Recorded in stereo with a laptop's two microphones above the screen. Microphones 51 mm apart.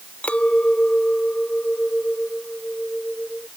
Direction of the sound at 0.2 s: 30° left (ahead or behind).